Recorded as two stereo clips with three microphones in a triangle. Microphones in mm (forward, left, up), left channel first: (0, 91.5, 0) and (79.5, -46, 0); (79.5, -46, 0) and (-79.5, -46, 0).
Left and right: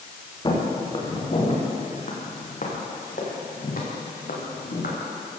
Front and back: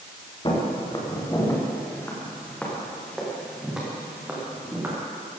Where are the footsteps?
60° left, 5.5 m; by 5.0 s 105° left, 6 m.